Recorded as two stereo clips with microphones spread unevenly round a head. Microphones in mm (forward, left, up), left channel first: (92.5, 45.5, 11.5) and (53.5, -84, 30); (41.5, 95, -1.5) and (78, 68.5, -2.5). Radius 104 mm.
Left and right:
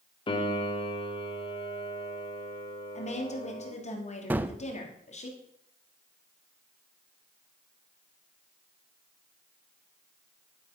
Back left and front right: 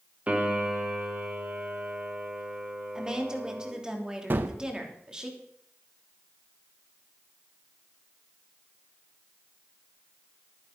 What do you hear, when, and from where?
0.3 s a piano: 20° left, 1.8 m
3.0 s a woman speaking: 40° left, 3 m
4.3 s a gunshot: 45° right, 0.6 m